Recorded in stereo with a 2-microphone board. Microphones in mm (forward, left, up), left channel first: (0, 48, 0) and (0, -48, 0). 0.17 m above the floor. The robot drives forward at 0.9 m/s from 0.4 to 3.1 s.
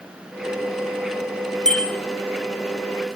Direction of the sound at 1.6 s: 5° left (ahead or behind).